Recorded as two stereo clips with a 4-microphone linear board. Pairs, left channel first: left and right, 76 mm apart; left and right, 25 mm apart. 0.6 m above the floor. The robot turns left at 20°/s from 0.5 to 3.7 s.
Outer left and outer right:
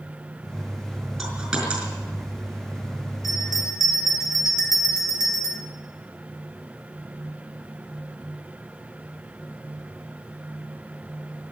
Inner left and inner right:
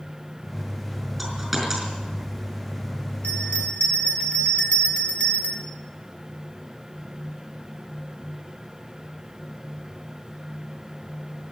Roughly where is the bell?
Left.